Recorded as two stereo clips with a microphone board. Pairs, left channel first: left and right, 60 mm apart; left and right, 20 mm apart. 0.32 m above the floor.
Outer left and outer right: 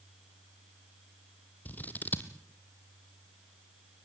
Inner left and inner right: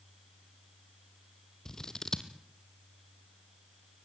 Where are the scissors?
30° left (ahead or behind), 1.6 m.